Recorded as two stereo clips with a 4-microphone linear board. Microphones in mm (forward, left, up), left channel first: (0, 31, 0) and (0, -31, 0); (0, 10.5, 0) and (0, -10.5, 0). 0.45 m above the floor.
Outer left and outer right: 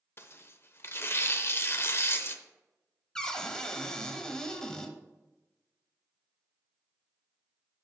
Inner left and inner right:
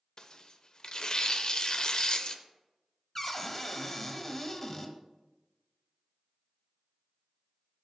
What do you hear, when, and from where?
0.2 s tearing paper: 40° left (ahead or behind), 0.6 m
3.1 s a cupboard door: 10° left (ahead or behind), 0.8 m